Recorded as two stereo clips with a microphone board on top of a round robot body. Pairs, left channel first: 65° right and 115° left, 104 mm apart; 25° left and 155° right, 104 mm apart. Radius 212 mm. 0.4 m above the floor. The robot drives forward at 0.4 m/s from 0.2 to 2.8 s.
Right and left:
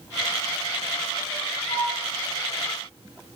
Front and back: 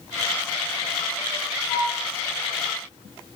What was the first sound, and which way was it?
A flute, 45° right.